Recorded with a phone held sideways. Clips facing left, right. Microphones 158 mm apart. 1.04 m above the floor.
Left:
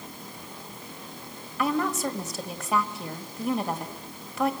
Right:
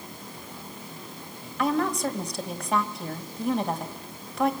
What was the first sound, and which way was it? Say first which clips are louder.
A woman speaking: right 1 dB; 5° left (ahead or behind).